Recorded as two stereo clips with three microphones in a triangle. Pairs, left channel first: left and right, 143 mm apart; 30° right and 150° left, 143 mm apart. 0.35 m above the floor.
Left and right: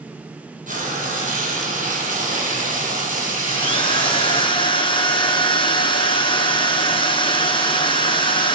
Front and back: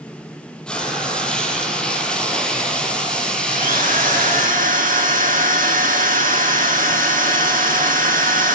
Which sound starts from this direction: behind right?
Frying, at 0.7 s.